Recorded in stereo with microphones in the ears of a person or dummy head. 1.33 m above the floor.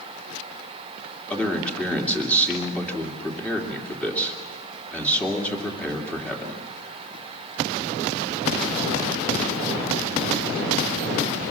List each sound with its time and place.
1.3 s a man speaking: 5° left (ahead or behind), 3 m